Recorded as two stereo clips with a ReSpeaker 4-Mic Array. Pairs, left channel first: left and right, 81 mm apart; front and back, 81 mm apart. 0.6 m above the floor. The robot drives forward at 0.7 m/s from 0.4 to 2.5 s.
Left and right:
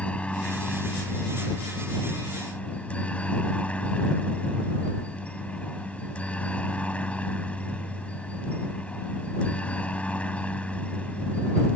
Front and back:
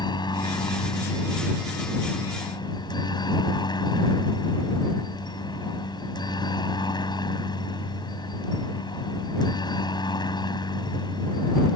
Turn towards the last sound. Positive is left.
turn(degrees=15)